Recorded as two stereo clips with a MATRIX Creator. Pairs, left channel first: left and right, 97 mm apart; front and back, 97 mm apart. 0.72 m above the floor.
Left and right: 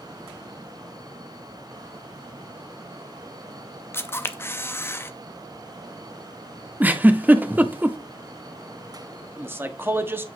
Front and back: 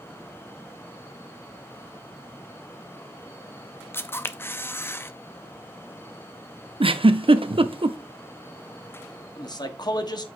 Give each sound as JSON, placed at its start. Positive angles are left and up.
{"t": 3.9, "sound": "a camera shutter", "azimuth_deg": 45, "distance_m": 0.6}
{"t": 6.8, "sound": "a giggle", "azimuth_deg": -160, "distance_m": 0.6}
{"t": 9.4, "sound": "a man speaking", "azimuth_deg": -25, "distance_m": 1.1}